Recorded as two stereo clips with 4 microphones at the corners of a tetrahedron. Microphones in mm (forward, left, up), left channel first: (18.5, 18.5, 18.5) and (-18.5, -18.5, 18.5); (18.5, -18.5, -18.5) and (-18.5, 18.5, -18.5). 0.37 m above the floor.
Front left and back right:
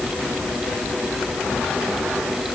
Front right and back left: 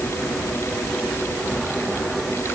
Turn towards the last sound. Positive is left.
No sound to turn to.